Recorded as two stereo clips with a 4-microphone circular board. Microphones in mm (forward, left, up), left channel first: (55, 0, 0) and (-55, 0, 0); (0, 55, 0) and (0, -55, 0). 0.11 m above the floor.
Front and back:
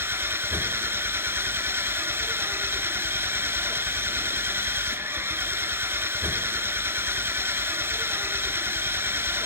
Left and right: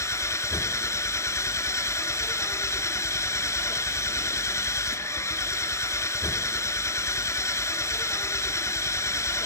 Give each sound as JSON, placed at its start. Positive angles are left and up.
{"t": 0.0, "sound": "an engine running", "azimuth_deg": 130, "distance_m": 0.9}